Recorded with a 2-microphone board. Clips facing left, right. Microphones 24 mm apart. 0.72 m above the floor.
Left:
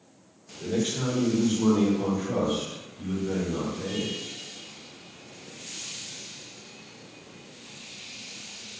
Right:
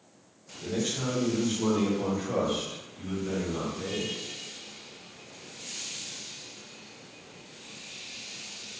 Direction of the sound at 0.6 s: 25° left (ahead or behind).